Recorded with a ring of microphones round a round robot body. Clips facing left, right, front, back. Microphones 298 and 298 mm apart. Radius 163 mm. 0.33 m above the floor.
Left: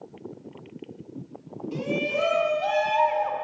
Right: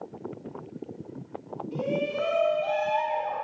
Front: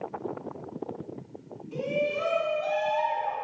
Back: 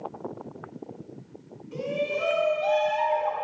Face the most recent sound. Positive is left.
turn(degrees=100)